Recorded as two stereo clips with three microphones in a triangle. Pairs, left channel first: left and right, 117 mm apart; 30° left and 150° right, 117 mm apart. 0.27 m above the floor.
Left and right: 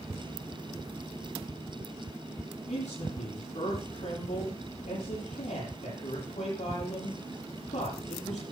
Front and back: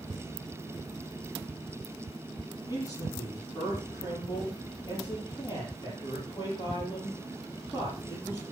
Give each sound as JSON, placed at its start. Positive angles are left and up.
{"t": 2.7, "sound": "a man speaking", "azimuth_deg": 85, "distance_m": 8.0}